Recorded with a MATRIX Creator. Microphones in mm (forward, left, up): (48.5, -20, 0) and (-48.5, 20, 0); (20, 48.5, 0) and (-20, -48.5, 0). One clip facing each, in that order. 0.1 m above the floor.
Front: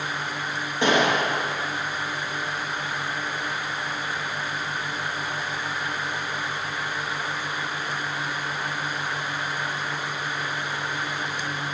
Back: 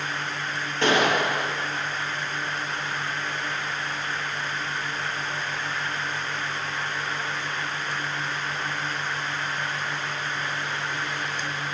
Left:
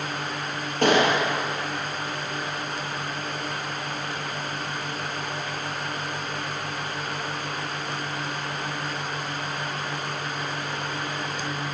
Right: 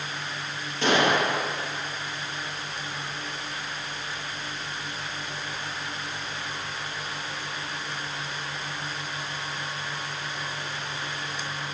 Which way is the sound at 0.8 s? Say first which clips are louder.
Front 1 dB, left 2 dB; 50° left.